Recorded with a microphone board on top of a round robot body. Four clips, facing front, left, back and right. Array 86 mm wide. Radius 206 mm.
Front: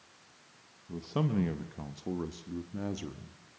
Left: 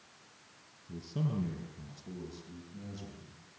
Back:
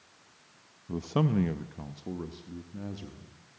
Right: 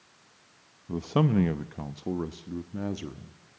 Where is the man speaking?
120° right, 0.9 m; by 3.6 s 65° right, 1.8 m.